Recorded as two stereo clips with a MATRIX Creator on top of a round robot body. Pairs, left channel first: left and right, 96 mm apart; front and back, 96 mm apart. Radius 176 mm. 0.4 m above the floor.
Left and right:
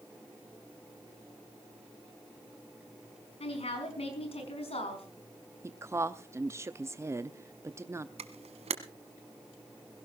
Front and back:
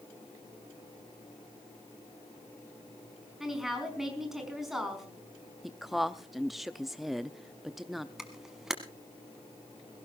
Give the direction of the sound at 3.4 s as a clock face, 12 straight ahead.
9 o'clock.